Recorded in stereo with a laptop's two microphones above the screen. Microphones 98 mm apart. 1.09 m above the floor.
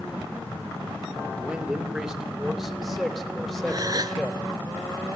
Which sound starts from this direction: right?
A gasp, at 3.7 s.